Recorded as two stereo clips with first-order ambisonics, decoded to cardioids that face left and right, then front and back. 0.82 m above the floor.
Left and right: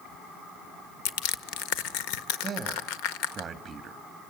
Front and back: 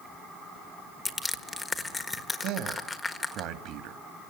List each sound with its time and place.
1.1 s crushing: 80° left, 1.4 m
2.4 s a man speaking: 155° right, 1.6 m